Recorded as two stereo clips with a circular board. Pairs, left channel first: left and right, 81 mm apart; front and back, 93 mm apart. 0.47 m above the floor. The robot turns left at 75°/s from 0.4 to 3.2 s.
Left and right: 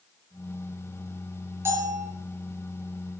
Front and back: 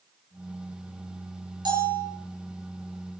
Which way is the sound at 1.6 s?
150° right.